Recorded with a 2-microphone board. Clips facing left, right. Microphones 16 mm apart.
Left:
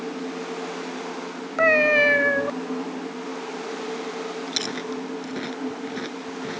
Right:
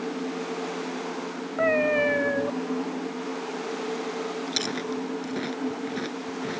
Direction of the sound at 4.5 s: 5° left (ahead or behind).